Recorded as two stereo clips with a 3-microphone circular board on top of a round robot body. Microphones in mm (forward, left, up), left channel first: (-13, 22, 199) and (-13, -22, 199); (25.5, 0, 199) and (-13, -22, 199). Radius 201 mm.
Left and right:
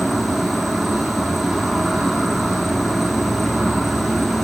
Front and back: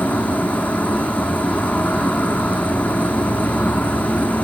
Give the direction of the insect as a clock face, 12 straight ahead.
12 o'clock.